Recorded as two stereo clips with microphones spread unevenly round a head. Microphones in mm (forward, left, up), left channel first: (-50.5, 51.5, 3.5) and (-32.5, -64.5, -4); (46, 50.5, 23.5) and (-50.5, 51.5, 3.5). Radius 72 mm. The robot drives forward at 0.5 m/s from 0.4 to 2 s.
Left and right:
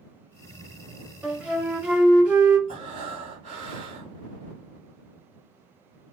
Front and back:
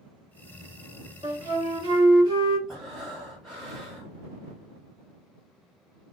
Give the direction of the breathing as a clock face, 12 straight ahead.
3 o'clock.